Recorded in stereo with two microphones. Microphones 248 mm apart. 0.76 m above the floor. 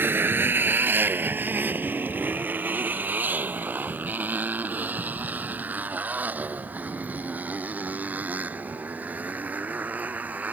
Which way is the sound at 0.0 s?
10° right (ahead or behind).